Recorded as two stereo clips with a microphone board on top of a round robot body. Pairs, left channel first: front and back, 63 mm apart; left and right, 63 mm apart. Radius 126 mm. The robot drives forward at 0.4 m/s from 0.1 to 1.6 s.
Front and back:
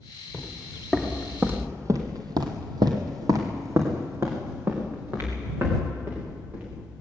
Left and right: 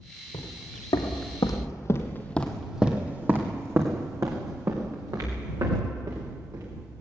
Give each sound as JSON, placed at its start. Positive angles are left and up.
{"t": 0.3, "sound": "footsteps", "azimuth_deg": 90, "distance_m": 3.5}